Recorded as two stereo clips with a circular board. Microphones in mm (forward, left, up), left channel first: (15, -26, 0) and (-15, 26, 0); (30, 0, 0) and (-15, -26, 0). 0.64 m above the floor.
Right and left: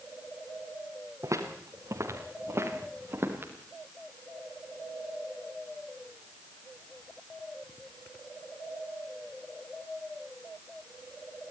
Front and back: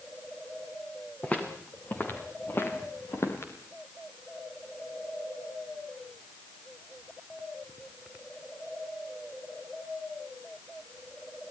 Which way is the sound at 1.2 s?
95° left.